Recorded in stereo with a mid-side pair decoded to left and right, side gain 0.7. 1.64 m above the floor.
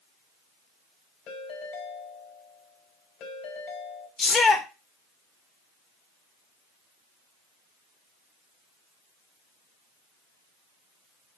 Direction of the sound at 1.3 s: 50° left.